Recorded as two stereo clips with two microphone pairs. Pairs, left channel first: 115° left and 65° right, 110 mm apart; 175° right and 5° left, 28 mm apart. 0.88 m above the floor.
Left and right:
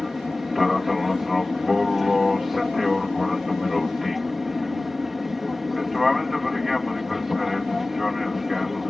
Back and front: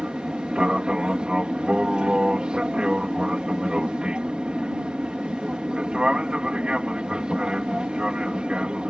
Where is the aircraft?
25° left.